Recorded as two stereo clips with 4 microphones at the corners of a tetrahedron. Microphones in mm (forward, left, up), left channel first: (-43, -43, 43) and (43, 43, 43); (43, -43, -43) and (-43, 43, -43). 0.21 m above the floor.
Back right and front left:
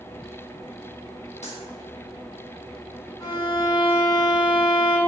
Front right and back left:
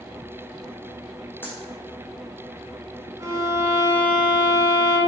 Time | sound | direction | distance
1.4 | a dropped coin | 120° right | 2.5 m
3.2 | a violin | 175° right | 2.5 m